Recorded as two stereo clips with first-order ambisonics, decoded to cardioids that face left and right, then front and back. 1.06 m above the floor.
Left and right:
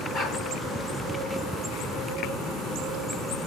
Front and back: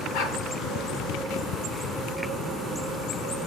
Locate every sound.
0.1 s a dog barking: 30° left, 4 m